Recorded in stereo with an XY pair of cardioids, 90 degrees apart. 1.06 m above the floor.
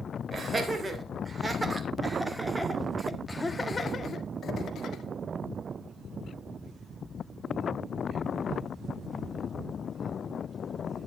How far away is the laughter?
About 3.5 m.